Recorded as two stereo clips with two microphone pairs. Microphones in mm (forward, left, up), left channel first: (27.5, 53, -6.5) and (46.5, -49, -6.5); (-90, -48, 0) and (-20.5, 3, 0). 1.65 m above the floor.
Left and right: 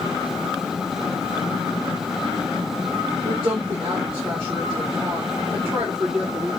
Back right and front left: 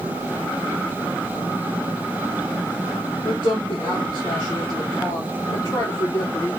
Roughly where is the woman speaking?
Behind right.